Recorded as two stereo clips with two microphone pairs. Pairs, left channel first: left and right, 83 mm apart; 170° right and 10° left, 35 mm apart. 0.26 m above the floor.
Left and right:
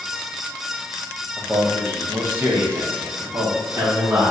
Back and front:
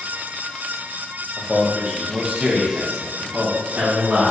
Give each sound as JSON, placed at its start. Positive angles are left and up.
{"t": 1.4, "sound": "a man speaking", "azimuth_deg": -85, "distance_m": 1.0}